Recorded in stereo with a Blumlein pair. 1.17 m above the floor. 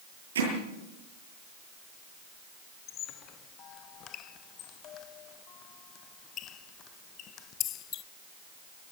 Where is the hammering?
65° right, 10 m.